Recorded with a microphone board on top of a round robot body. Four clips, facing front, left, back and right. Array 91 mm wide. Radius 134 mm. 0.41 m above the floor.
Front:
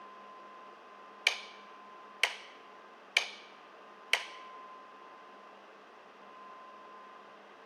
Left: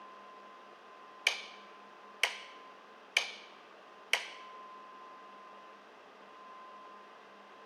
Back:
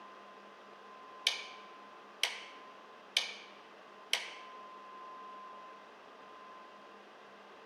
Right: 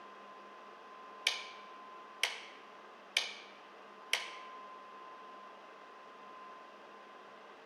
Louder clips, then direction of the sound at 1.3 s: Left 4 dB, front 6 dB; 30° left.